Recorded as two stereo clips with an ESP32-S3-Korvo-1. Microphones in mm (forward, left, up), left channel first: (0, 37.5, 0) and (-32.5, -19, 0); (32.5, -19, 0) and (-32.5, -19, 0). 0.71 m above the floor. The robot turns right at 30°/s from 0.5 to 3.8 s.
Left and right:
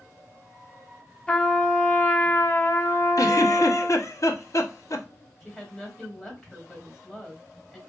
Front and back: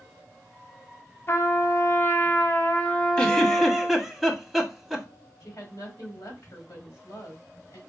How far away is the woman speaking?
About 2 m.